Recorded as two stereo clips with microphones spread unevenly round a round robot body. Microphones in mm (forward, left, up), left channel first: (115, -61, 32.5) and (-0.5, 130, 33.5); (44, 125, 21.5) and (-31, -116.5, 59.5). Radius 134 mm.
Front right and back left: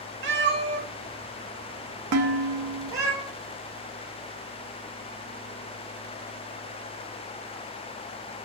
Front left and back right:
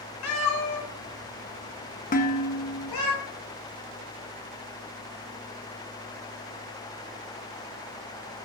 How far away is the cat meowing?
About 1.2 m.